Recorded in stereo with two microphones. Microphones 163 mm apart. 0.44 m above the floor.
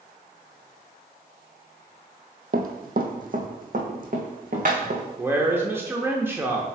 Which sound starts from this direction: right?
Running footsteps, at 2.5 s.